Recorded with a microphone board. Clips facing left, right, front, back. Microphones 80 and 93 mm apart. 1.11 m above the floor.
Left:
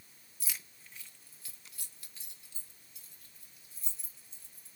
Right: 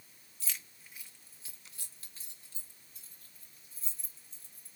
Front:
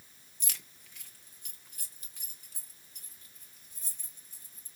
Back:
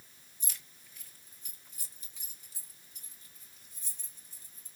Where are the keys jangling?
15° left, 0.7 m; by 4.7 s 40° right, 4.5 m.